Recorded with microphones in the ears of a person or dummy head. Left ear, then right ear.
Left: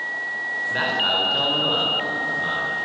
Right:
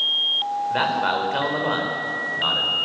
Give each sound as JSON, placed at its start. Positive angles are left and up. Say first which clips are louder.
{"t": 0.7, "sound": "a man speaking", "louder": "left 1 dB", "side_deg": -25, "distance_m": 4.5}